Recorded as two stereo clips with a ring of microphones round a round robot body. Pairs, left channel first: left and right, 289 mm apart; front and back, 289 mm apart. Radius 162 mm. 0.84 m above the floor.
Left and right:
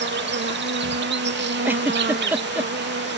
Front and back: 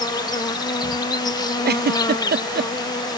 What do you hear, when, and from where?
0.0 s an insect: 70° right
1.6 s a giggle: 170° right